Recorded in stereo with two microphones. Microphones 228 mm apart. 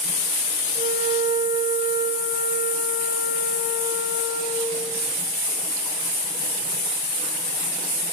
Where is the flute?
25° right (ahead or behind), 1.5 m.